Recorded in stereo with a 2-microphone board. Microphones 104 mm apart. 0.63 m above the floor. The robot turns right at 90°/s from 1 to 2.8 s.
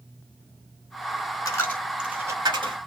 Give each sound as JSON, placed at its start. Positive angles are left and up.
{"t": 1.4, "sound": "a dropped coin", "side_deg": 35, "distance_m": 0.9}